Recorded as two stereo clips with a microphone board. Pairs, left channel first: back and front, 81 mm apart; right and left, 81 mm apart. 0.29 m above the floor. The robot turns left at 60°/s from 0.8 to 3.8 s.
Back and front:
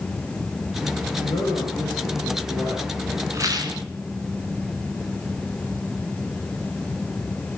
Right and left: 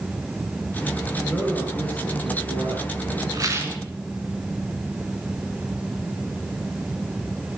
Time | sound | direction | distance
1.2 | a man speaking | 165° right | 4 m
3.3 | a rattle | 50° left | 2 m